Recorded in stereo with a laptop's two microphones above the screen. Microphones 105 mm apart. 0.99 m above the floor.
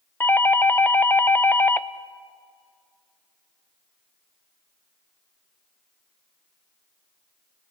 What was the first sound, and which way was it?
A doorbell, 20° left (ahead or behind).